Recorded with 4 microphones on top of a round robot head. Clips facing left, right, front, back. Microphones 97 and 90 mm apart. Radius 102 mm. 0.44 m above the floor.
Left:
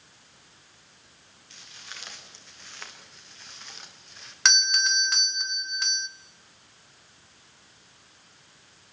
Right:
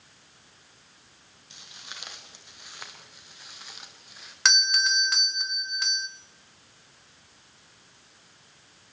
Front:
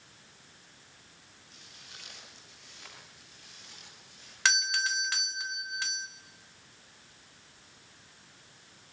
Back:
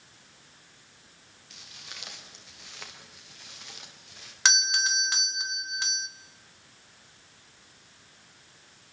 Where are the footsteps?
160° right, 6 m; by 4.3 s 175° right, 5 m.